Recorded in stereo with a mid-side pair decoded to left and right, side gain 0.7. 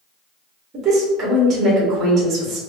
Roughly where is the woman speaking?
Ahead right.